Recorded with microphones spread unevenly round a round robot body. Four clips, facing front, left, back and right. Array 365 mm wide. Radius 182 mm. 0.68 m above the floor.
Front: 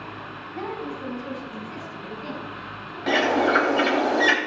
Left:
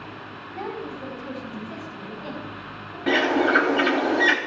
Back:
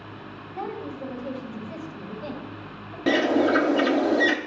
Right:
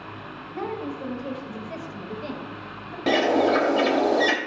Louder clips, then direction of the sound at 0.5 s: Right 2 dB, front 1 dB; 95° right.